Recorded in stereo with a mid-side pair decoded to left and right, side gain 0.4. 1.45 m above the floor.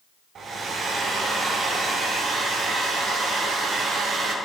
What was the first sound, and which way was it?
A hair dryer, 65° right.